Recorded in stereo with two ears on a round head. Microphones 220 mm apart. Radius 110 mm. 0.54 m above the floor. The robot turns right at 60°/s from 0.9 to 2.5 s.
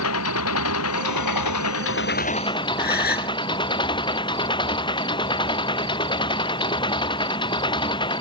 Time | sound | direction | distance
0.0 | an engine running | 65° left | ?
2.8 | a gasp | 40° left (ahead or behind) | ?